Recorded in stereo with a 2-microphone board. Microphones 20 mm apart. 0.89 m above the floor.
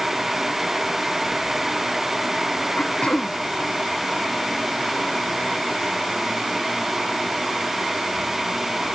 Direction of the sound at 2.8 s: 70° left (ahead or behind).